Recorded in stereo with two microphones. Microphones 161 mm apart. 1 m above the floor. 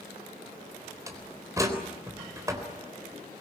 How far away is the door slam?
About 3.5 m.